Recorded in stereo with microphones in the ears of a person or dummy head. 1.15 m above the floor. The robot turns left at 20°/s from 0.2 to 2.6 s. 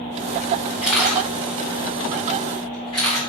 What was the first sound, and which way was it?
A camera shutter, 5° right (ahead or behind).